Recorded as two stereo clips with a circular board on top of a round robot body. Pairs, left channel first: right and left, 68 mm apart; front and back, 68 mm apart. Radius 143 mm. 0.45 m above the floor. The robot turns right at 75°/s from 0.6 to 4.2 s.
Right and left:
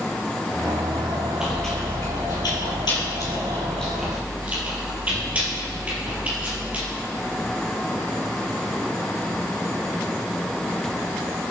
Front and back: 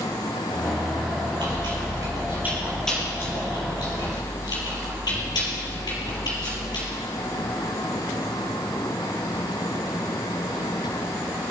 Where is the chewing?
170° left, 4.5 m; by 6.9 s 20° left, 4.5 m.